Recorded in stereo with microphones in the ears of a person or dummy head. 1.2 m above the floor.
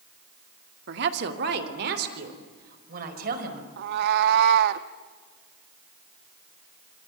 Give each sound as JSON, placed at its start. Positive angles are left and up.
{"t": 0.9, "sound": "a woman speaking", "side_deg": -70, "distance_m": 2.0}
{"t": 3.8, "sound": "a cat meowing", "side_deg": -65, "distance_m": 1.1}